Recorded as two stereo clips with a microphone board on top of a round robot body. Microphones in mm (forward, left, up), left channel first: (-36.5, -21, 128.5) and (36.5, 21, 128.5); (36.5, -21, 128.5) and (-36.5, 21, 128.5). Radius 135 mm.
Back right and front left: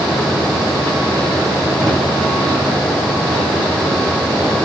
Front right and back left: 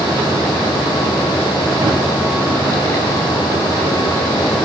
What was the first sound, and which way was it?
A drawer, 120° left.